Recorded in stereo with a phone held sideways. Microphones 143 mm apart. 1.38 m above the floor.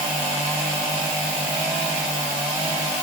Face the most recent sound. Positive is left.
No sound to turn to.